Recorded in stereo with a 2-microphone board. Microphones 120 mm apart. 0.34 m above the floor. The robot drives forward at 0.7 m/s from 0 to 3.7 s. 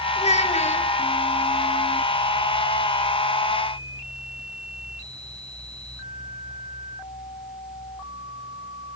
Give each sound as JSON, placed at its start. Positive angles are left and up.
{"t": 0.2, "sound": "a child speaking", "side_deg": 60, "distance_m": 1.7}